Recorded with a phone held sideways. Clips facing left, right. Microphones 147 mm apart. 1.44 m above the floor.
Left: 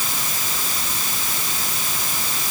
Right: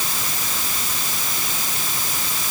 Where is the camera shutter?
I don't hear a camera shutter.